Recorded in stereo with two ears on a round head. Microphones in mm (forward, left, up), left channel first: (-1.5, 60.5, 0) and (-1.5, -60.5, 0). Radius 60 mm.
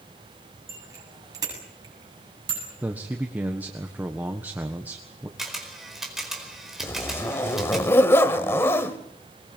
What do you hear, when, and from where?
0.7 s a bicycle bell: 20° right (ahead or behind), 7.5 m; by 2.7 s 35° right (ahead or behind), 9 m
2.8 s a man speaking: 10° right (ahead or behind), 1.4 m
5.4 s a camera shutter: centre (ahead or behind), 4.5 m
6.8 s a zipper: 20° left (ahead or behind), 1.4 m